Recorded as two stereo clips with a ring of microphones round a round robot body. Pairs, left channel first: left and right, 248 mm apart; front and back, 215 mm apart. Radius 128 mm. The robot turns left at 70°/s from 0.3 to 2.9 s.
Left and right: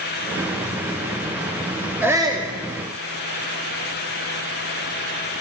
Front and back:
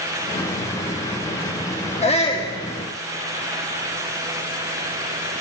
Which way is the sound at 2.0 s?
15° right.